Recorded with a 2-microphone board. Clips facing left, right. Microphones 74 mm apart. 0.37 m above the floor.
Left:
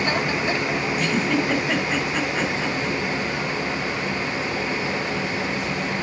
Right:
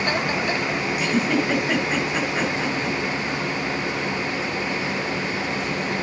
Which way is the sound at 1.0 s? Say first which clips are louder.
Right 2 dB; 5° right (ahead or behind).